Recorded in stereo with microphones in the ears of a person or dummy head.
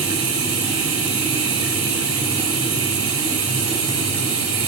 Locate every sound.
0.0 s running water: 5° right (ahead or behind), 7.5 m